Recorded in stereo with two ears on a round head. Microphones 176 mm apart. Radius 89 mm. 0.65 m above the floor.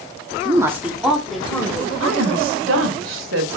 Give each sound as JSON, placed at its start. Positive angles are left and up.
{"t": 0.5, "sound": "a woman speaking", "side_deg": -20, "distance_m": 1.0}
{"t": 2.0, "sound": "a woman speaking", "side_deg": -70, "distance_m": 2.5}